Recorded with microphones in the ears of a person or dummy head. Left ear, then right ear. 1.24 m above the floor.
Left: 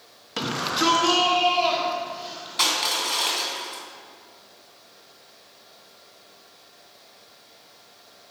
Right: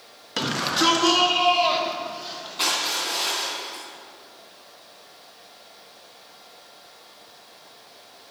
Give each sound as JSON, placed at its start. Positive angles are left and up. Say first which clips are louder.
{"t": 0.4, "sound": "a shout", "louder": "right 2 dB", "side_deg": -5, "distance_m": 1.4}
{"t": 2.6, "sound": "crushing", "louder": "left 2 dB", "side_deg": 55, "distance_m": 3.0}